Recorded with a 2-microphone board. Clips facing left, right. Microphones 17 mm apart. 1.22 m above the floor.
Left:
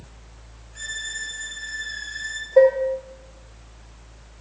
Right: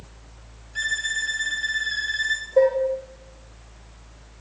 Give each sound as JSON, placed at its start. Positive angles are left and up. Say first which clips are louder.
{"t": 0.8, "sound": "a violin", "louder": "right 6 dB", "side_deg": -60, "distance_m": 0.8}
{"t": 2.6, "sound": "dishes clattering", "louder": "left 4 dB", "side_deg": 50, "distance_m": 1.1}